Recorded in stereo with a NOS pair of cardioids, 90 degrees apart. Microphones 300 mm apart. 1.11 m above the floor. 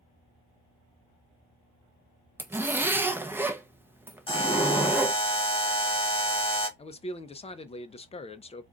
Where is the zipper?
10° right, 0.6 m.